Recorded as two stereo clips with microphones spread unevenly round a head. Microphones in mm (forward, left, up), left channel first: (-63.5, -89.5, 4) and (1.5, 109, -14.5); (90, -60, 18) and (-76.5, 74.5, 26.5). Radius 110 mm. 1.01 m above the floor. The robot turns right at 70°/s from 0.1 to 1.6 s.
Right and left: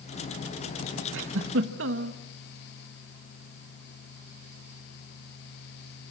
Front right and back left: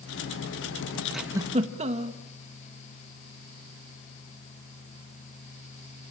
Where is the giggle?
50° left, 1.6 m; by 2.2 s 85° left, 1.6 m.